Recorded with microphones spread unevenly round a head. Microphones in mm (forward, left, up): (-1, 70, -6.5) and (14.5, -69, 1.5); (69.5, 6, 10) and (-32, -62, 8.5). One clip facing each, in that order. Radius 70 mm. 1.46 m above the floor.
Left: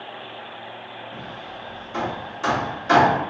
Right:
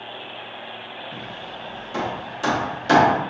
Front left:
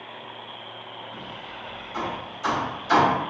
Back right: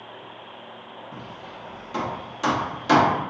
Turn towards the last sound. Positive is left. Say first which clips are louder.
# right 1 dB, even
turn(degrees=-135)